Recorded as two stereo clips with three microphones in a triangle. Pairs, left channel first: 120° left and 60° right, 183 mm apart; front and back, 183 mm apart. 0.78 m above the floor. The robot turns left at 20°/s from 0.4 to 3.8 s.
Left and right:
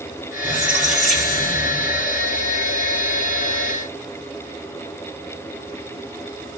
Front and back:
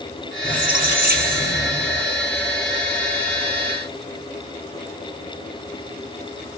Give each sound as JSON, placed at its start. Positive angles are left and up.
{"t": 0.4, "sound": "a squeak", "azimuth_deg": -140, "distance_m": 1.9}